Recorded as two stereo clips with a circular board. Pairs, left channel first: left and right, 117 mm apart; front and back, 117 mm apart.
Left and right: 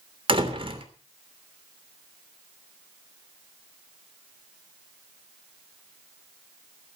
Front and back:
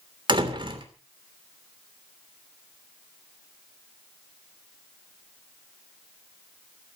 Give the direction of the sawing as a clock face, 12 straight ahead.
No sawing in this recording.